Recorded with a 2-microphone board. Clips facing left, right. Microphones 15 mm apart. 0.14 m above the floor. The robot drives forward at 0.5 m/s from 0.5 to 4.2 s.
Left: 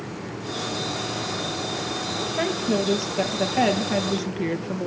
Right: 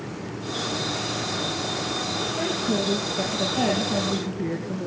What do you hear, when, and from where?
2.4 s a woman speaking: 65° left (ahead or behind), 4 m